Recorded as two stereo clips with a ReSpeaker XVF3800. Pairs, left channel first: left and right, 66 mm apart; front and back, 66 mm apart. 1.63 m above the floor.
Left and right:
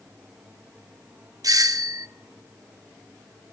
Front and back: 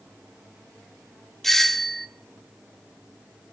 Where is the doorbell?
85° right, 0.8 m.